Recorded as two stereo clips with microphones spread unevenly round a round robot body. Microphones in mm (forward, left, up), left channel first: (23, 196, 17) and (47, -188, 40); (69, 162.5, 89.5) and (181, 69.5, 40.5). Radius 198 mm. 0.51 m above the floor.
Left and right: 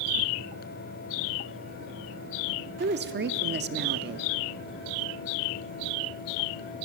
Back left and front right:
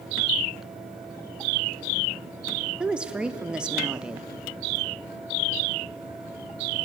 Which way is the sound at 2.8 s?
55° right.